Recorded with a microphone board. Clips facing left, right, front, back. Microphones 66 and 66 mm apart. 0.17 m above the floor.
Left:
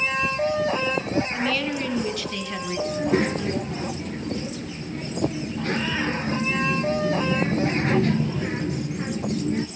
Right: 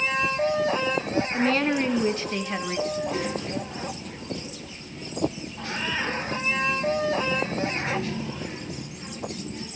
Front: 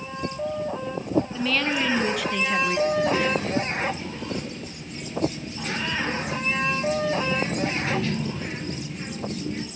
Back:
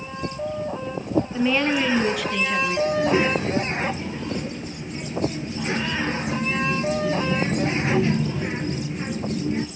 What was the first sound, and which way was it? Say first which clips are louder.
A woman speaking: right 3 dB, back 4 dB; 120° right.